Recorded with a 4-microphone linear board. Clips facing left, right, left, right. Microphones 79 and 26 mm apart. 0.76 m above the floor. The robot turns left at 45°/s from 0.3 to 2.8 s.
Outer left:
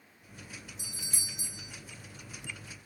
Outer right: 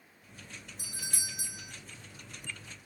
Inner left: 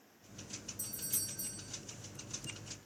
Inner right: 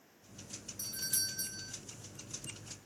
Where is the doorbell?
60° right, 1.4 m; by 1.7 s 105° right, 1.4 m.